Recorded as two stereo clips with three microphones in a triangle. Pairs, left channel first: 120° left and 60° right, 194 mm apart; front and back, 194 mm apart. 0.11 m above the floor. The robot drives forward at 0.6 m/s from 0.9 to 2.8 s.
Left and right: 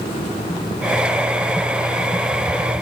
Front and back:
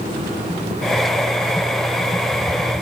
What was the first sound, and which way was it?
Only background noise.